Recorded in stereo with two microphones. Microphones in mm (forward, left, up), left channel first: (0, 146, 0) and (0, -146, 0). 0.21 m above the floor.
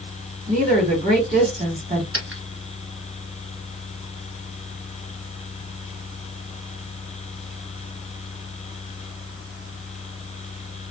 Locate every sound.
0.5 s a woman speaking: 20° right (ahead or behind), 1.7 m
2.1 s a dropped coin: 50° right (ahead or behind), 1.4 m